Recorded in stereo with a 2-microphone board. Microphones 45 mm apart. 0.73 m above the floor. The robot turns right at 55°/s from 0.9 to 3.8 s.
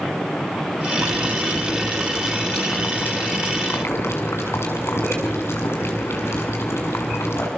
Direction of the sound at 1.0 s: 65° right.